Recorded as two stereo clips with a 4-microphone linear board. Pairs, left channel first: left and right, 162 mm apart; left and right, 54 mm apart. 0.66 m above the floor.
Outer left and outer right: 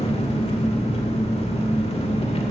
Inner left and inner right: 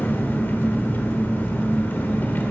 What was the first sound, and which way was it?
An engine running, 40° left (ahead or behind).